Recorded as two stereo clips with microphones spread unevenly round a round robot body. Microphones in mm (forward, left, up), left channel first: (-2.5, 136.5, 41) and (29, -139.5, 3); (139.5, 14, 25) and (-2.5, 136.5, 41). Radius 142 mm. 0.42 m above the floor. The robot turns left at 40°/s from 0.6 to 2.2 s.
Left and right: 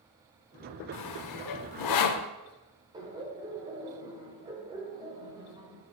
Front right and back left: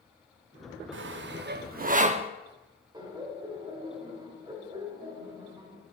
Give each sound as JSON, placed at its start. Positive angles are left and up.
{"t": 0.9, "sound": "sawing", "azimuth_deg": 130, "distance_m": 0.8}
{"t": 2.9, "sound": "laughter", "azimuth_deg": -150, "distance_m": 2.5}